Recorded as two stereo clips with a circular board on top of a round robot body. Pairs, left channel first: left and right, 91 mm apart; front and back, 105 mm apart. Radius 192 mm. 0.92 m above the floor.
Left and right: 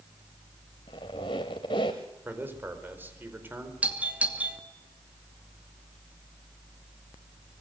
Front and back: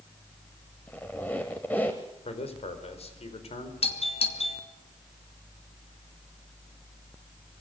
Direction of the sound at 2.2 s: 20° right.